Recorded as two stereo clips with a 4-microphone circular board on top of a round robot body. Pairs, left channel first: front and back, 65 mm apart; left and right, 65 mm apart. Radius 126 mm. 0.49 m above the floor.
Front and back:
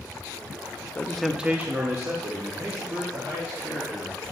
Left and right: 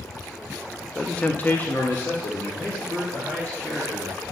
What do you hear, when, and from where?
0.9 s a man speaking: 25° left, 0.9 m; by 4.2 s 150° left, 4 m